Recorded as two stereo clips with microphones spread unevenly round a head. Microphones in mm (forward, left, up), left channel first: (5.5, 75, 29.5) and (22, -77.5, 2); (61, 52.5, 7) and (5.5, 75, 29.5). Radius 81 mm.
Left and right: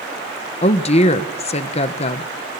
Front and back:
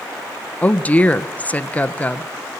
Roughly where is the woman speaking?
Ahead left.